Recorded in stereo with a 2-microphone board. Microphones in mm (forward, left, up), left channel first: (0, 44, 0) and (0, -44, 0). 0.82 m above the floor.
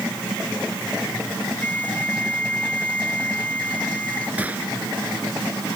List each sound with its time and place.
1.6 s a flute: 15° left (ahead or behind)
4.4 s a gunshot: 15° right (ahead or behind)